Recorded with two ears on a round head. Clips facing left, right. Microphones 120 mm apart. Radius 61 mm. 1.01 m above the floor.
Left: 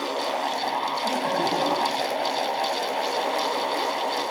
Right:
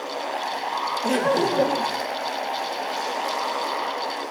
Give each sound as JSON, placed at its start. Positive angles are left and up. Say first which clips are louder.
{"t": 1.0, "sound": "laughter", "louder": "right 6 dB", "side_deg": -80, "distance_m": 4.5}